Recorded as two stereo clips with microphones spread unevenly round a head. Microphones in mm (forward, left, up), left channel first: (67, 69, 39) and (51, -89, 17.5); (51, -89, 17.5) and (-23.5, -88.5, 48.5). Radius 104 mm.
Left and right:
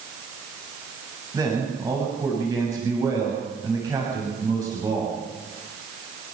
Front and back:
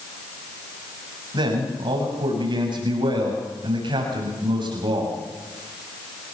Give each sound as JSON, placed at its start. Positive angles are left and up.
{"t": 1.3, "sound": "a man speaking", "azimuth_deg": -170, "distance_m": 6.5}